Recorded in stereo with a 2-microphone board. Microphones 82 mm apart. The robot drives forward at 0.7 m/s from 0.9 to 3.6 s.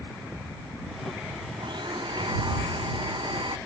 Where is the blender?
70° right (ahead or behind); by 3.6 s 75° right (ahead or behind).